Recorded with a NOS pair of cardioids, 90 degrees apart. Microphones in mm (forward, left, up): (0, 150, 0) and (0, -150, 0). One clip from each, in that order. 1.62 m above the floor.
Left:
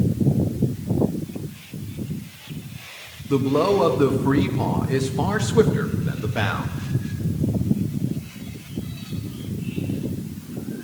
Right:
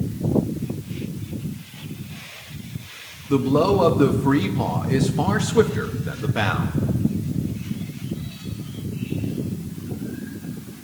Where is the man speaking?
5° right, 1.2 m.